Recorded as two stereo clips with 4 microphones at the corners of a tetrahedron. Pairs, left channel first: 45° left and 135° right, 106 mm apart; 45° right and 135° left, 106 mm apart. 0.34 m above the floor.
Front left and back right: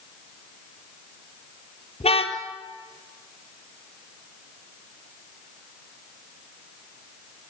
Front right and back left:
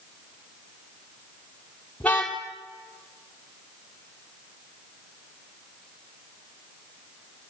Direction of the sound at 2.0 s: 35° left.